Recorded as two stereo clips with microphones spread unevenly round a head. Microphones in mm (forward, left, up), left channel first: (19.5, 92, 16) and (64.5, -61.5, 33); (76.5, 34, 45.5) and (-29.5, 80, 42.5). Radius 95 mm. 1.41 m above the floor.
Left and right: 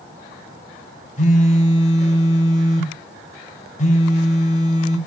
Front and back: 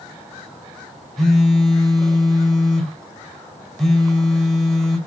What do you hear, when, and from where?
1.2 s a phone buzzing: 65° left, 3.5 m